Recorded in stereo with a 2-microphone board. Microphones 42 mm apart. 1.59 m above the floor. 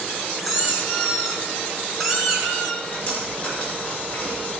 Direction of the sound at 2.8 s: 30° left (ahead or behind).